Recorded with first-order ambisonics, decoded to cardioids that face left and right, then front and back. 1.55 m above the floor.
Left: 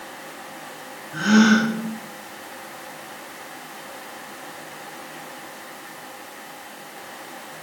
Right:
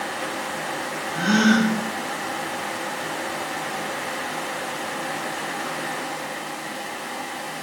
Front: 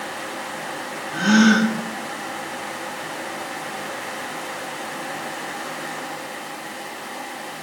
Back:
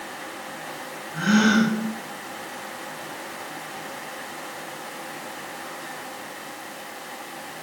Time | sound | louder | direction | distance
1.1 | a gasp | left 2 dB, front 3 dB | 15° left | 1.0 m